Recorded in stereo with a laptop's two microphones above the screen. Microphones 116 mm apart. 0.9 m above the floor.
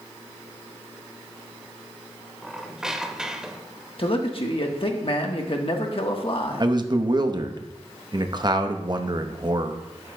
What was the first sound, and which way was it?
A squeak, 5° right (ahead or behind).